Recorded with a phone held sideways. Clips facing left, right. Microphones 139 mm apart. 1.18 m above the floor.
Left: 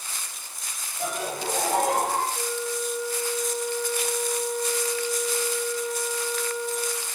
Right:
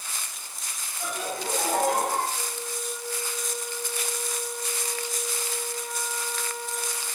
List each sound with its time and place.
1.0 s laughter: 85° left, 5 m
2.3 s a flute: 75° left (ahead or behind), 5 m